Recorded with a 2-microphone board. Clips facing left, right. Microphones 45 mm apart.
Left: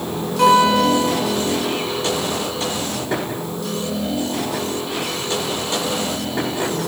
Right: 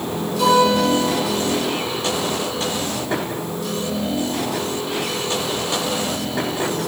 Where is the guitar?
55° left (ahead or behind), 2.5 m.